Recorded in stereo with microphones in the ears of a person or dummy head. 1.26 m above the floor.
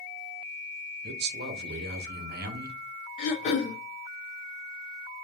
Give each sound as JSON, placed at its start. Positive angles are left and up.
{"t": 1.0, "sound": "a man speaking", "side_deg": -55, "distance_m": 0.8}
{"t": 3.2, "sound": "throat clearing", "side_deg": 40, "distance_m": 0.9}